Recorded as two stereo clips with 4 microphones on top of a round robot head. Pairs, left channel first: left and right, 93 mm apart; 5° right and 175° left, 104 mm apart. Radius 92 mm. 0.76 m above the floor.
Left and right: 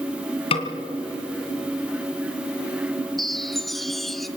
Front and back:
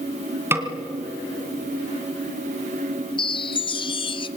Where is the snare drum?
110° left, 2.5 m.